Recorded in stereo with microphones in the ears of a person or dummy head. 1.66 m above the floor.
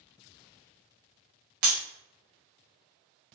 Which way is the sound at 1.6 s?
55° right (ahead or behind).